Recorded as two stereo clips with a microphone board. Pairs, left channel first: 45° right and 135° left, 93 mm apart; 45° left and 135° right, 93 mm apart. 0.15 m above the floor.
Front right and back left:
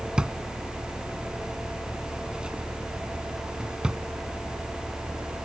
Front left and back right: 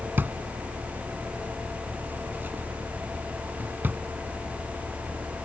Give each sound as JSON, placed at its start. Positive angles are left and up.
{"t": 0.2, "sound": "a drawer", "azimuth_deg": -160}